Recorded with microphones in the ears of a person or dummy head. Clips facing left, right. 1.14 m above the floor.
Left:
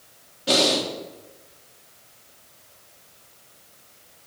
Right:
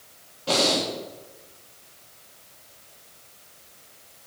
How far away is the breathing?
About 1.1 m.